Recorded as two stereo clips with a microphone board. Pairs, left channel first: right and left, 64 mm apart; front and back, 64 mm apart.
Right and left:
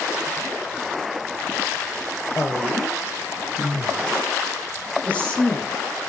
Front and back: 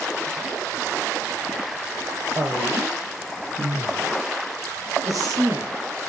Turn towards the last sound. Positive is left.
turn(degrees=-165)